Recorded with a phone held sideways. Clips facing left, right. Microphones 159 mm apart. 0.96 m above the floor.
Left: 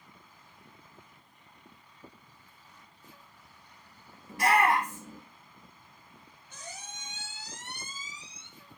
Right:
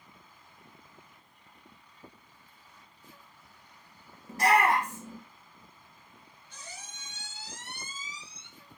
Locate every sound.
4.3 s a shout: 40° right (ahead or behind), 0.7 m
6.5 s a squeak: 50° left (ahead or behind), 0.9 m